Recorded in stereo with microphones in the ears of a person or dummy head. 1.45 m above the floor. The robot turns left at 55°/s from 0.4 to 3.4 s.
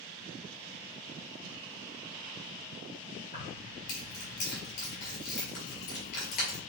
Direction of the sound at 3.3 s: 45° left (ahead or behind).